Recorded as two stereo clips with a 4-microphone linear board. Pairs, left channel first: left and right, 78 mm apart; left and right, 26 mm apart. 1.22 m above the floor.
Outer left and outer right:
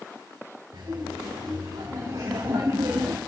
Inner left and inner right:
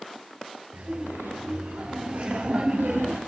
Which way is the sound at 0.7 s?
90° right.